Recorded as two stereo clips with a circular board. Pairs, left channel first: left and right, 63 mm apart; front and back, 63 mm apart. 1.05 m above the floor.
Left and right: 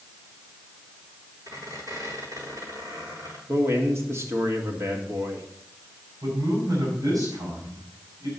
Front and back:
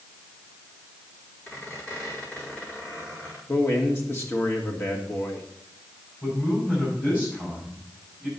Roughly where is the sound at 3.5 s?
Ahead right.